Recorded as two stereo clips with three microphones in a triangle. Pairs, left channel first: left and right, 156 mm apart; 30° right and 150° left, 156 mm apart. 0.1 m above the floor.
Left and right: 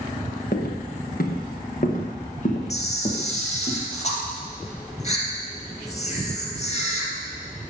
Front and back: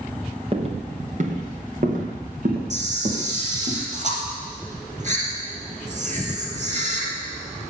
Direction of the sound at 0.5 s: 100° left.